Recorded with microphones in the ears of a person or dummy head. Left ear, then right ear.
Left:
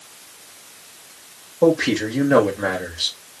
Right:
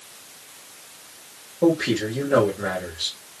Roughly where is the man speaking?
Left.